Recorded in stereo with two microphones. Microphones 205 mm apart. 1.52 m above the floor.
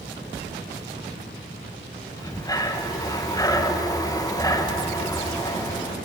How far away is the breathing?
About 1.4 m.